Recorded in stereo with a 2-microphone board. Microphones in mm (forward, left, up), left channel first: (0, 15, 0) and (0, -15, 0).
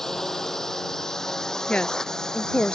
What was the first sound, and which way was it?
A drone, 15° left (ahead or behind).